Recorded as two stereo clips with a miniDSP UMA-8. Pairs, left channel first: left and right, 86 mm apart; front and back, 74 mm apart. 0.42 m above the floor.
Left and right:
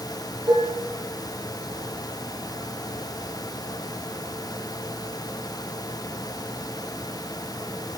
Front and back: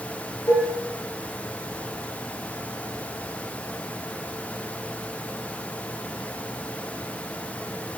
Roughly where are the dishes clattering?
Ahead right.